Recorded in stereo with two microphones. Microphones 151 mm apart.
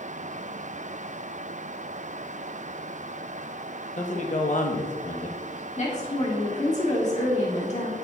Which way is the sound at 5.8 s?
50° left (ahead or behind).